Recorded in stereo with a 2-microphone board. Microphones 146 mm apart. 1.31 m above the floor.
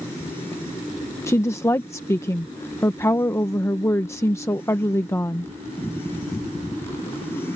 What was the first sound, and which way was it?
A woman speaking, 20° left (ahead or behind).